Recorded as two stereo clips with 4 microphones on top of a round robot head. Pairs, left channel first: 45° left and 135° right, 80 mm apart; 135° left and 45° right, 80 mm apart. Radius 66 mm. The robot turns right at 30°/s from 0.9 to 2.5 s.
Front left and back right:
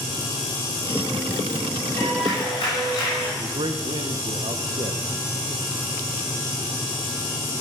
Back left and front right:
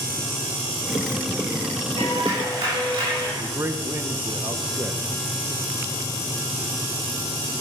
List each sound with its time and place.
2.0 s a clap: 15° right, 6.5 m; by 3.3 s straight ahead, 6.5 m
3.4 s a man speaking: 105° right, 1.1 m